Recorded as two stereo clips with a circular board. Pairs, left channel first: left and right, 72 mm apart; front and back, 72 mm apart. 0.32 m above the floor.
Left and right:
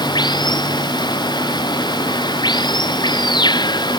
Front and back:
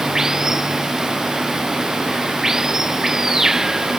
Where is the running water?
95° left.